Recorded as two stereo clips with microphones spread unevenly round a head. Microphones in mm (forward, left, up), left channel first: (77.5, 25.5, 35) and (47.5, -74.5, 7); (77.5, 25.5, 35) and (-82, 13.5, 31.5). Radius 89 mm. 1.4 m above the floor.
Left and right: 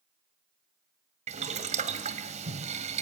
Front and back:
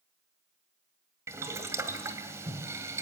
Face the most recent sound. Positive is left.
turn(degrees=-100)